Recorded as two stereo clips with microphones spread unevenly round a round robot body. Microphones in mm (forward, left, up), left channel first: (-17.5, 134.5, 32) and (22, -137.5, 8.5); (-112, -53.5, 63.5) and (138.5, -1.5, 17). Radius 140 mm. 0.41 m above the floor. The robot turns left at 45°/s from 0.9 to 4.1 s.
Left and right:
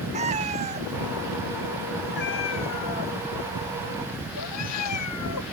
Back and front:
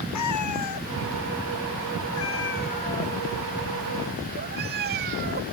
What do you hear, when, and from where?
0.1 s a cat meowing: 150° right; by 5.4 s 65° left